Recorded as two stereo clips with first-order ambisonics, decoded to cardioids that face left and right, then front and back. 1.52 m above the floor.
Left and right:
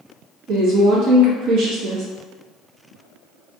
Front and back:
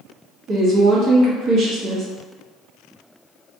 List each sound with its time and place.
0.5 s a woman speaking: 125° right, 0.8 m